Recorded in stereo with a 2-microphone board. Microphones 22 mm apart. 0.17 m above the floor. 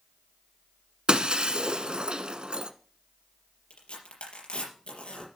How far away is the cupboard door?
I don't hear a cupboard door.